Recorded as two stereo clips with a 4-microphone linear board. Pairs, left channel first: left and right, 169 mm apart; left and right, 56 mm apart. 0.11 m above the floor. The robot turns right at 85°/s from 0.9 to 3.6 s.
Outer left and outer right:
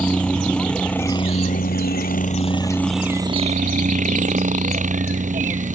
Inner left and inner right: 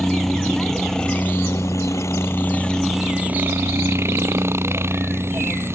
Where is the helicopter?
5° left; by 5.8 s 125° right.